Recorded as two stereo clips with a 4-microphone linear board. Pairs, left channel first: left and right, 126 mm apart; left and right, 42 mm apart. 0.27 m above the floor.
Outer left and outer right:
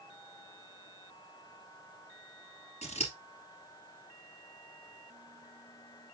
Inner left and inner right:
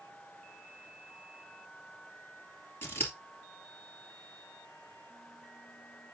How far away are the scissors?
About 2.5 m.